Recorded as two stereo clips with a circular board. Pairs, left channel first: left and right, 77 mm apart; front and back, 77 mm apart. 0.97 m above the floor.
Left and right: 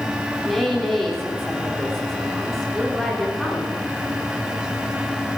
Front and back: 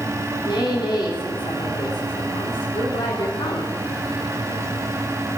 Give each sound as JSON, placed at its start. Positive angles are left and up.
{"t": 0.5, "sound": "a woman speaking", "azimuth_deg": 5, "distance_m": 3.5}